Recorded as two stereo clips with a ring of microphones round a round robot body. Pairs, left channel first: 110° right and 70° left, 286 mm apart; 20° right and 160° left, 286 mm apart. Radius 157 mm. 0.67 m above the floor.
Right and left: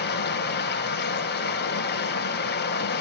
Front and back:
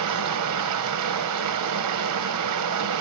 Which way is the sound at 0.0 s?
170° right.